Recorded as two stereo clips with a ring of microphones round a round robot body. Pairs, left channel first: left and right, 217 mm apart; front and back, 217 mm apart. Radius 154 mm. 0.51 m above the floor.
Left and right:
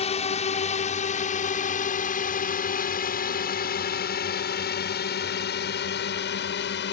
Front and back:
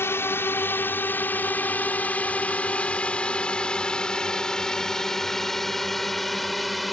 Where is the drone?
70° left; by 6.9 s 90° left.